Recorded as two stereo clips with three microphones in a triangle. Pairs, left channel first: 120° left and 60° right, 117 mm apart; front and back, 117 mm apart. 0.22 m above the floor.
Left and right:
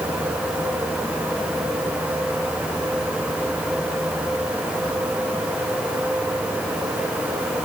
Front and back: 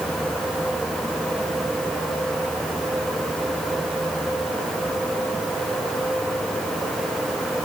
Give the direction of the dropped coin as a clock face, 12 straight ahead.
No dropped coin in this recording.